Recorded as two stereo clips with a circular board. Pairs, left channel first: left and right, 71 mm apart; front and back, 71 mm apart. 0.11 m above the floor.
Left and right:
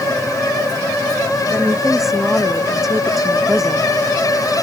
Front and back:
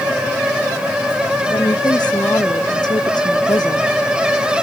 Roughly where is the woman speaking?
Ahead.